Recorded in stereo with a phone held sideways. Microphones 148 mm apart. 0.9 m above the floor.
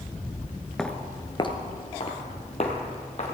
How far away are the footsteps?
About 0.8 m.